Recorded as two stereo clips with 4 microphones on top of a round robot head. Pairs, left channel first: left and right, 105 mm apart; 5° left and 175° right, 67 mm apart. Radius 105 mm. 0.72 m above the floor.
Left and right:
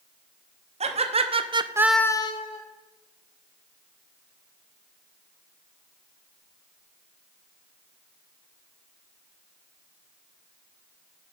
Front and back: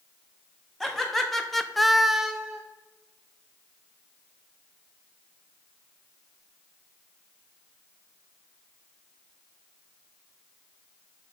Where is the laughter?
80° right, 1.4 m; by 2.6 s 100° left, 0.9 m.